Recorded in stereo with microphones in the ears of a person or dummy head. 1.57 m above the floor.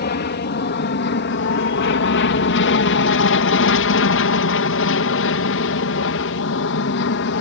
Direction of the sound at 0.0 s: 45° left (ahead or behind).